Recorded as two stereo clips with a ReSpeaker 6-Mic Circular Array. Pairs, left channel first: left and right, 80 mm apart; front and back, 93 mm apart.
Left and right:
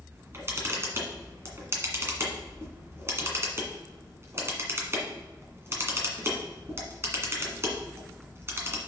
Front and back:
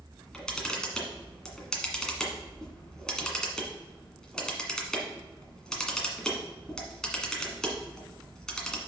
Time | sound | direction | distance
0.1 | a camera shutter | 75° right | 1.8 m